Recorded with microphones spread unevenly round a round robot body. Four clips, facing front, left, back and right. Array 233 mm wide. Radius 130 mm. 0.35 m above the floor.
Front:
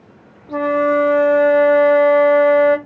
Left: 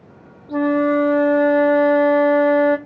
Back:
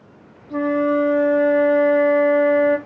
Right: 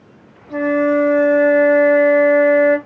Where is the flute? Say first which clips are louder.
Right 1 dB, front 3 dB; 10° right, 0.7 m.